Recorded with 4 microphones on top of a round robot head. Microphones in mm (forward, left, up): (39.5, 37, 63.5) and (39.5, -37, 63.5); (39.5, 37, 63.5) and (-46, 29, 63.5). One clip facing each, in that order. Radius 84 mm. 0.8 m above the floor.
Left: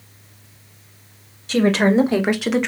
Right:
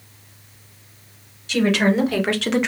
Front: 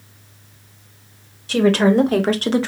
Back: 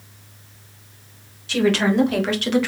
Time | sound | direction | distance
1.5 | a woman speaking | 50° left | 1.6 m